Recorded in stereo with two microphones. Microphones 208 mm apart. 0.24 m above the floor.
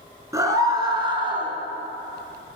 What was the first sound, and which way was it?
A scream, 15° right (ahead or behind).